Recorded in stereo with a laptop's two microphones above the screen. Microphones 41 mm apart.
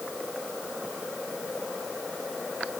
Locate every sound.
Only background noise.